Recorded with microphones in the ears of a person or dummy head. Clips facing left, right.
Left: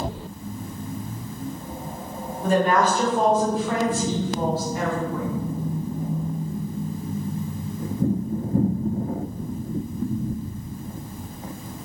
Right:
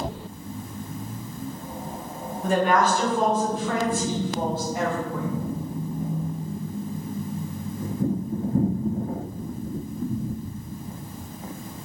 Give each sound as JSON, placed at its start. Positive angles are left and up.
{"t": 2.4, "sound": "a woman speaking", "side_deg": 35, "distance_m": 1.4}